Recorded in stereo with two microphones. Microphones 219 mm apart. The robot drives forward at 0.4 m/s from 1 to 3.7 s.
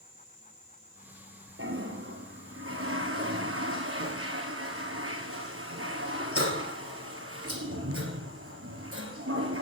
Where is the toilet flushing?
70° right (ahead or behind), 2.5 m; by 9.6 s 85° right, 2.5 m.